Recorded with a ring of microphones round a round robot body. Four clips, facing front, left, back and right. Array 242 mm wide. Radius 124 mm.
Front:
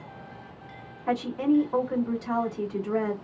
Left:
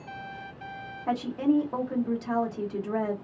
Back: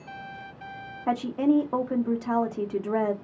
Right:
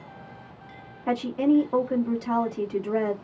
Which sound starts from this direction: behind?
A woman speaking, at 1.1 s.